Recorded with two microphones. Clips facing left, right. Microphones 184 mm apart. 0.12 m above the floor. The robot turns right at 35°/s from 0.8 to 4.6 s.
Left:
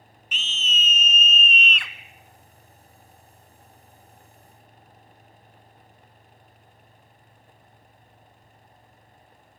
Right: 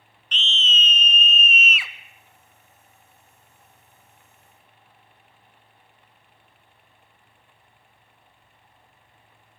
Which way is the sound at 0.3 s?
10° left (ahead or behind).